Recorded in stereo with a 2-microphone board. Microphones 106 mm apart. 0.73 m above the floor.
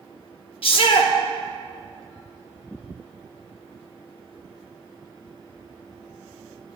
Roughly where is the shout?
Left.